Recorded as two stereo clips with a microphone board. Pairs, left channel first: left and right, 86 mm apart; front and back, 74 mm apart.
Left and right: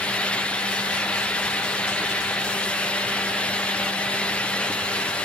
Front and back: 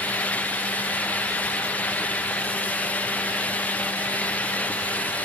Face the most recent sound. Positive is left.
No sound to turn to.